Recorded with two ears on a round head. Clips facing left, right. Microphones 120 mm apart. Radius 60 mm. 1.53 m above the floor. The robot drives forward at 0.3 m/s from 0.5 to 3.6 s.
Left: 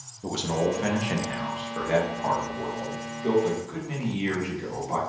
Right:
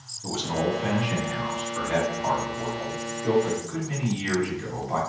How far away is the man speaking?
About 0.7 m.